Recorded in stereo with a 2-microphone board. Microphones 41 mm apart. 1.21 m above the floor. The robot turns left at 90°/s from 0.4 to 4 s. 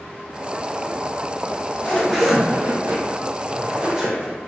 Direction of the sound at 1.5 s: 60° left.